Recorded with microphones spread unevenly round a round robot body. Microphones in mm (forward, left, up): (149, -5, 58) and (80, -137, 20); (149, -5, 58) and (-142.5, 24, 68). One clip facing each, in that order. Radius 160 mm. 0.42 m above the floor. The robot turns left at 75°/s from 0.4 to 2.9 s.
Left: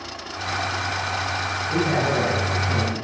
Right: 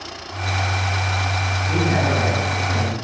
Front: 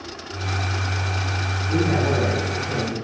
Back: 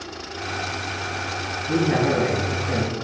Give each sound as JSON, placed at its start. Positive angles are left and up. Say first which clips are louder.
{"t": 1.7, "sound": "a man speaking", "louder": "right 1 dB, back 1 dB", "azimuth_deg": -125, "distance_m": 3.5}